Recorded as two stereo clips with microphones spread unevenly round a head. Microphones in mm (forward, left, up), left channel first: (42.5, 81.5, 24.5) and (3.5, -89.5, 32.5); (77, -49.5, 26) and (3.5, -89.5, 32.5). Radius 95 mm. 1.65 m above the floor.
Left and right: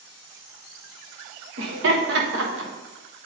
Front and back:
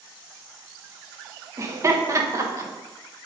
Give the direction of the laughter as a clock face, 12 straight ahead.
3 o'clock.